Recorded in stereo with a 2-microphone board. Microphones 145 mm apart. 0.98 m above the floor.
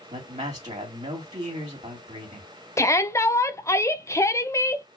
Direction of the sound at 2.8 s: 20° left (ahead or behind).